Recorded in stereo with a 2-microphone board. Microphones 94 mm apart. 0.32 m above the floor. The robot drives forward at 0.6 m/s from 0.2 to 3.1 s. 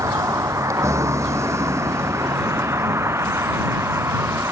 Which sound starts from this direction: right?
A vehicle, at 0.0 s.